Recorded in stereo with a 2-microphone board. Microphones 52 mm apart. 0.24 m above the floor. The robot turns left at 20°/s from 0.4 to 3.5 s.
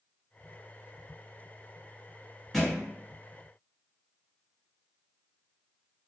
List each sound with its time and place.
2.5 s a thud: 5° left (ahead or behind), 1.2 m; by 2.8 s centre (ahead or behind), 1.2 m